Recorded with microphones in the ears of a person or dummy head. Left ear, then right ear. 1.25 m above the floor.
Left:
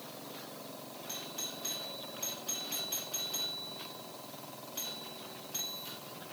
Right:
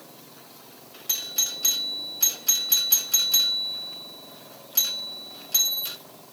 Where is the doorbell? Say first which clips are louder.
Right 15 dB; 50° right (ahead or behind), 1.1 m.